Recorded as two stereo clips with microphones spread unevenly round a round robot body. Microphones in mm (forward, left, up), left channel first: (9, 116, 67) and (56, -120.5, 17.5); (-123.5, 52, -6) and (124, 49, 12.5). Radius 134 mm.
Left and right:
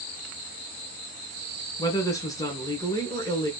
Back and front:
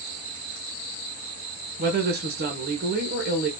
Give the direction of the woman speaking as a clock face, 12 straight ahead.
11 o'clock.